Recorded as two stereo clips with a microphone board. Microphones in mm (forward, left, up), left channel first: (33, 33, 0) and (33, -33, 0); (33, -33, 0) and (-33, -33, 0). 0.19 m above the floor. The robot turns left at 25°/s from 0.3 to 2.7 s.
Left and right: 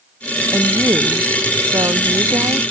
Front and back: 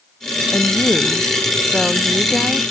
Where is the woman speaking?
50° right; by 2.6 s 105° right.